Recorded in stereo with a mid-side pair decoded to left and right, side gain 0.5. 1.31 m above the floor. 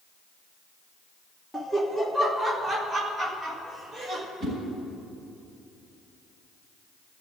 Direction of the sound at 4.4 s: 45° right.